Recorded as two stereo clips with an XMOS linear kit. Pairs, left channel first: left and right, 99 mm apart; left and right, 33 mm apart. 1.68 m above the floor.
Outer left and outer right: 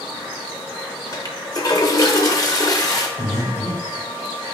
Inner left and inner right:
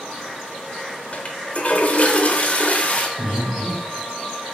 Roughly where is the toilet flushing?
Left.